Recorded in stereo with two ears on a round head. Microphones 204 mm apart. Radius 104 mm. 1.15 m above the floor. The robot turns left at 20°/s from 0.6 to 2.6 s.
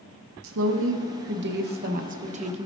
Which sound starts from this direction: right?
A woman speaking, at 0.4 s.